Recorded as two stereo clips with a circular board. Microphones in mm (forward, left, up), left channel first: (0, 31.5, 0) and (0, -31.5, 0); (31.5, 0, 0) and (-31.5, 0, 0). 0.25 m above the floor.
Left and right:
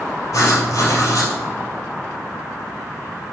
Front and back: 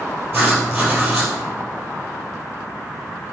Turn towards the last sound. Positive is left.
turn(degrees=125)